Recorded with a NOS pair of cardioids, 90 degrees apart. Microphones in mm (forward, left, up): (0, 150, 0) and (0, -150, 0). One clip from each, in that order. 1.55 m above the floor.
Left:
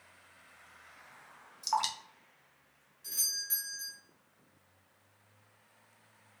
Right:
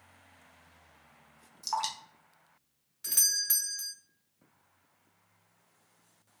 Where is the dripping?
5° left, 0.8 m.